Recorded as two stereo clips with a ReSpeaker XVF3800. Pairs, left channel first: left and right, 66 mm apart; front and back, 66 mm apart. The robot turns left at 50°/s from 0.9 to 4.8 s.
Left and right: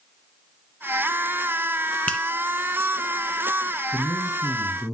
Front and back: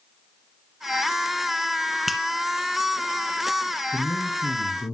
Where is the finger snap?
95° left, 0.9 m; by 2.2 s 85° left, 0.9 m.